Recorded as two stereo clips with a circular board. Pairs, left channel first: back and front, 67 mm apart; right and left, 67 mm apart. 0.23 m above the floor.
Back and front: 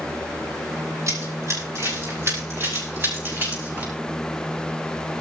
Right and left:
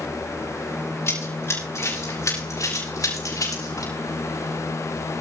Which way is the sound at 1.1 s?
45° right.